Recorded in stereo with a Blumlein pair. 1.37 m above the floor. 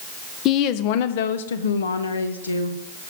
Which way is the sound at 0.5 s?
35° left.